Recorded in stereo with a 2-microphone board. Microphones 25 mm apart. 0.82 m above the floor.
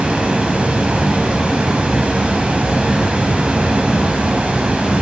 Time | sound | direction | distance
0.0 | running water | 65° right (ahead or behind) | 1.3 m